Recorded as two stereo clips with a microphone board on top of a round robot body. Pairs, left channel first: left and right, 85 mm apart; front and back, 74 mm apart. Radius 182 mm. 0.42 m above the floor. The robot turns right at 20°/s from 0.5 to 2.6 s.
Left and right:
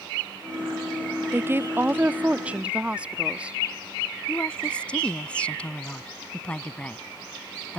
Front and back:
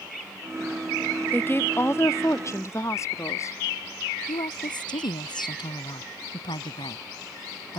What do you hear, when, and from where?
1.3 s a woman speaking: 45° right; by 3.6 s 20° right
4.3 s a woman speaking: 10° left